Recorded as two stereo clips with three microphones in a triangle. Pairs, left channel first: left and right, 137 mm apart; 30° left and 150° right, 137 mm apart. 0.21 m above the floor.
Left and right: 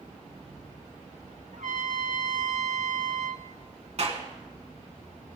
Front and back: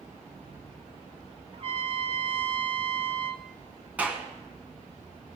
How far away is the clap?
About 1.8 m.